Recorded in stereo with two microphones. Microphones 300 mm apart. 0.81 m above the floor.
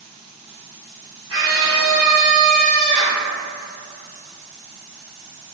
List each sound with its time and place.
1.3 s a scream: 45° right (ahead or behind), 1.3 m; by 3.2 s 20° left (ahead or behind), 0.9 m